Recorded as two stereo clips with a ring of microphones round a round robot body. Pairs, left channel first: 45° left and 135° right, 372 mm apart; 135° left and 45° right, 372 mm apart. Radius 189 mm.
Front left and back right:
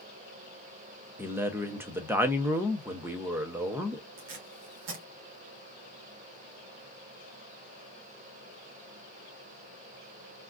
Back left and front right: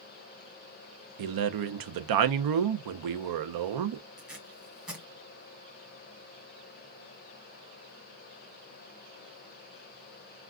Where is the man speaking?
50° right, 0.6 m.